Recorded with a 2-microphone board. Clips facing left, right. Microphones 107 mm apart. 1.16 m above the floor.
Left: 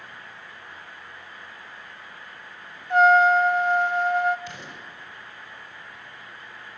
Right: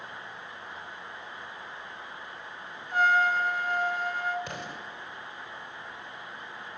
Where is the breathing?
I don't hear breathing.